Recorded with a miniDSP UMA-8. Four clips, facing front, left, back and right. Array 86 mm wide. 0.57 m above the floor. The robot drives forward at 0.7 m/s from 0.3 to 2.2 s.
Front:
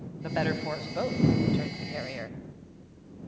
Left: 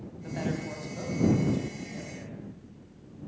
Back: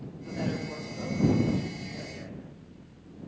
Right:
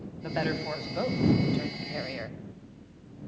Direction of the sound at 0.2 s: 35° right.